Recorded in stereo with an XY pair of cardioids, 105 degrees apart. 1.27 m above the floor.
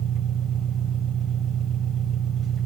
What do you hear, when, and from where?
0.0 s an engine running: 60° right, 1.2 m